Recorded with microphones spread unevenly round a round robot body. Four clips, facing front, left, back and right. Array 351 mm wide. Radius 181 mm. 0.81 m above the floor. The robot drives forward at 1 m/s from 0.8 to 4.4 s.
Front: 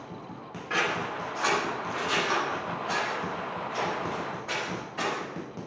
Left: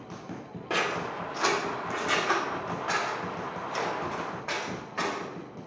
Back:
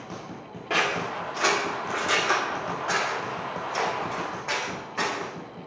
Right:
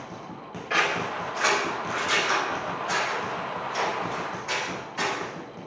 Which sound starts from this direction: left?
Scissors, at 0.7 s.